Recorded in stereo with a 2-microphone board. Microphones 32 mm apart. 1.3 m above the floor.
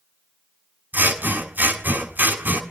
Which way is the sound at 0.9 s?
75° right (ahead or behind).